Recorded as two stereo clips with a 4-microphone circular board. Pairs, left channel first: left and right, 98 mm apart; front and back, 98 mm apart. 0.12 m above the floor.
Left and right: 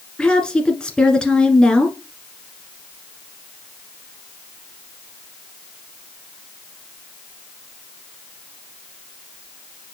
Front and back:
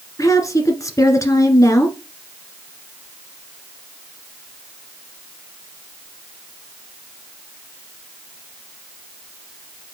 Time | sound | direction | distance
0.2 | a woman speaking | 15° left | 1.5 m